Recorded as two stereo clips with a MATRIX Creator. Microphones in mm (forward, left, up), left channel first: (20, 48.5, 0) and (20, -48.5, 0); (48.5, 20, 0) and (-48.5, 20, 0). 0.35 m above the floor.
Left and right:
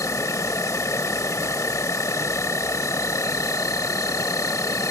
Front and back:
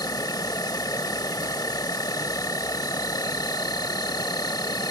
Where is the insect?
40° left.